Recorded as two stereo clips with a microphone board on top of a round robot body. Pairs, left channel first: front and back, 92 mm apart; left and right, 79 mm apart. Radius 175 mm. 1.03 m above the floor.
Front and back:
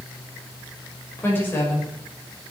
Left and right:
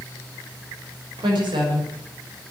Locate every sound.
1.2 s a woman speaking: 70° right, 6 m